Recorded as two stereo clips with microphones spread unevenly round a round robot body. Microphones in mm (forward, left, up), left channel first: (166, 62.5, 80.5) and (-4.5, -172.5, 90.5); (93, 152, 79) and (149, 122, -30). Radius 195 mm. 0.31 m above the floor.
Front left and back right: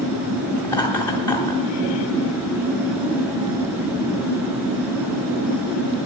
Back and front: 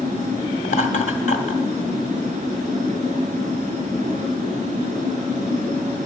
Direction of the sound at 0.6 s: 130° left.